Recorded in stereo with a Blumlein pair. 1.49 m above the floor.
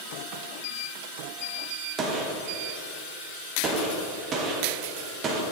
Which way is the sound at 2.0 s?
25° right.